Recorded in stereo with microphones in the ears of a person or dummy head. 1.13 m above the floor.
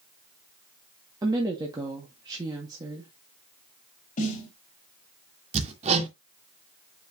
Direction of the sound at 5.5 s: 30° right (ahead or behind).